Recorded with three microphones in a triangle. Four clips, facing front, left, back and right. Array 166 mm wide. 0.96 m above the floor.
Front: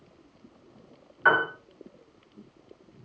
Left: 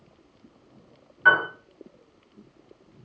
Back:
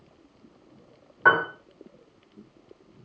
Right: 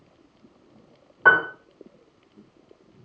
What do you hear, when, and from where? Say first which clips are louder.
1.2 s a piano: right 2 dB, back 2 dB; 120° right, 1.7 m